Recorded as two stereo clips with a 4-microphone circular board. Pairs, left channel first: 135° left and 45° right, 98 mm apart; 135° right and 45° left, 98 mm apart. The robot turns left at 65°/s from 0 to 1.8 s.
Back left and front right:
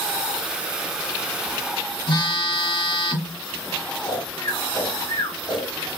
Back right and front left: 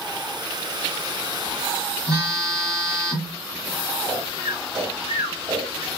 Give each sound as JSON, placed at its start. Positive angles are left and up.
{"t": 2.1, "sound": "a phone buzzing", "azimuth_deg": 95, "distance_m": 2.0}
{"t": 4.0, "sound": "snoring", "azimuth_deg": 95, "distance_m": 1.4}